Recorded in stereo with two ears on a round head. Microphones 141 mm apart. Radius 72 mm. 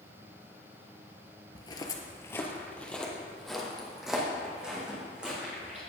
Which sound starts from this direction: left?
Footsteps, at 1.6 s.